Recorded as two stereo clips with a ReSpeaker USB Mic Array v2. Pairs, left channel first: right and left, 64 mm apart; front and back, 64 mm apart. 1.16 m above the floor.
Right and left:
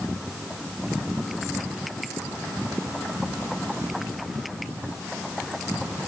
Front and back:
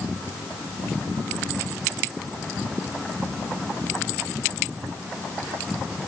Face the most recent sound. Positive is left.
No sound to turn to.